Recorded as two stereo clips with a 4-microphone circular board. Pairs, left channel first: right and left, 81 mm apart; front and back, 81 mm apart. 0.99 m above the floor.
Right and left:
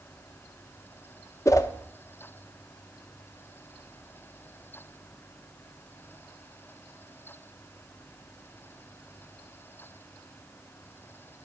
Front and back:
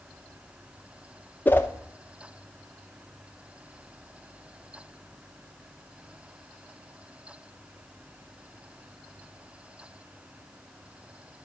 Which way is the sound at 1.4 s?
55° right.